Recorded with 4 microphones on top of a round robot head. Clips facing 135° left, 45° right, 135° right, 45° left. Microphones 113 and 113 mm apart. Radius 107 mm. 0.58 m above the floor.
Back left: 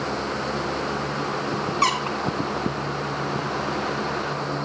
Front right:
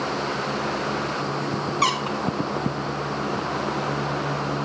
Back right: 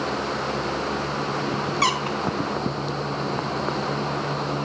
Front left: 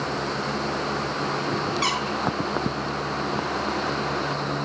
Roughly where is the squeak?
Behind right.